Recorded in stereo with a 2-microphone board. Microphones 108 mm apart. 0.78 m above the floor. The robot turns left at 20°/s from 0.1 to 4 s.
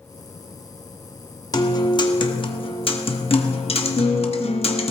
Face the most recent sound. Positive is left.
turn(degrees=90)